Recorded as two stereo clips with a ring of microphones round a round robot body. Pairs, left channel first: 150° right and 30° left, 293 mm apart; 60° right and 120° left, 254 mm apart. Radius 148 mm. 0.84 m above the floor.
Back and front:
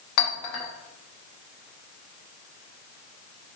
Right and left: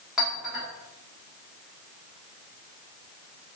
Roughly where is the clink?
Behind right.